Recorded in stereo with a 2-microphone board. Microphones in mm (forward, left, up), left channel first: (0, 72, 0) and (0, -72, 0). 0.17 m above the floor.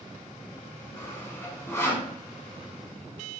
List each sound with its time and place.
1.0 s sawing: 15° left (ahead or behind), 0.5 m